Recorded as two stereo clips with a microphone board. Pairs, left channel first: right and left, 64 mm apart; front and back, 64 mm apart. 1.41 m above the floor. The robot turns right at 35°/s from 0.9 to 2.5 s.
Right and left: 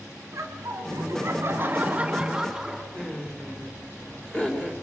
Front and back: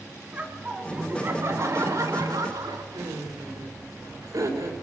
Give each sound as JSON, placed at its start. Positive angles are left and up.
{"t": 0.3, "sound": "laughter", "azimuth_deg": 120, "distance_m": 2.5}
{"t": 2.9, "sound": "laughter", "azimuth_deg": -160, "distance_m": 4.5}